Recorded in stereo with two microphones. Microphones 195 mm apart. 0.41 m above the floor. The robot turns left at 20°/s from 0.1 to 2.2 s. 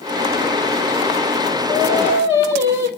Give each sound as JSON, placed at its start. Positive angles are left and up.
{"t": 1.7, "sound": "singing", "side_deg": -10, "distance_m": 6.0}